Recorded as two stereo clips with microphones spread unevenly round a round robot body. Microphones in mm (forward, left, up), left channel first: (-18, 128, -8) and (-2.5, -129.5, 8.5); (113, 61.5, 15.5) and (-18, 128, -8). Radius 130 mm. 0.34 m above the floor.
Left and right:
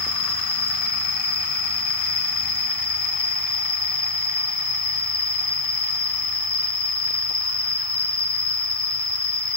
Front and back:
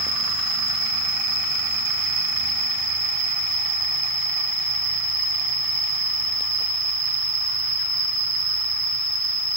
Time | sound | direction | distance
0.0 | an insect | 120° left | 0.9 m